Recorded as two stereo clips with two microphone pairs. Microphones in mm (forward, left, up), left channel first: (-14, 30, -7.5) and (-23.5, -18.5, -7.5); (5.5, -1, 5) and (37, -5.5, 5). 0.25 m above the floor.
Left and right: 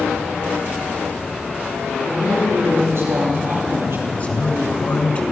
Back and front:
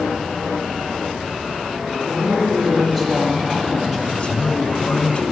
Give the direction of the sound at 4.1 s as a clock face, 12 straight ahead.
8 o'clock.